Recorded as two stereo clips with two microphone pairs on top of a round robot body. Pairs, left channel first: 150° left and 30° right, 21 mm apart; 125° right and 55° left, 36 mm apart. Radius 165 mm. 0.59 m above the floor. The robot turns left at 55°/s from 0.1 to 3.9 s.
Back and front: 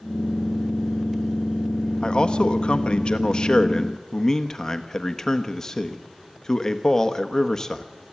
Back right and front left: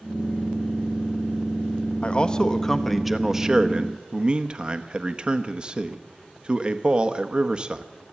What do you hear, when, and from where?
2.0 s a man speaking: 170° right, 1.3 m; by 7.8 s 85° left, 1.3 m